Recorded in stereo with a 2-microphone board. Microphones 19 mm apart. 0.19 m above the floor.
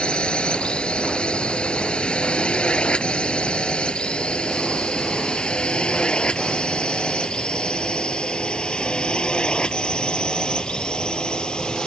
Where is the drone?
65° left (ahead or behind); by 11.9 s 55° left (ahead or behind).